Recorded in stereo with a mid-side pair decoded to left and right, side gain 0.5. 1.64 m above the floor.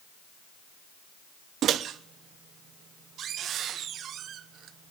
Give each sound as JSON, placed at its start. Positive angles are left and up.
{"t": 1.6, "sound": "a microwave", "azimuth_deg": -60, "distance_m": 0.9}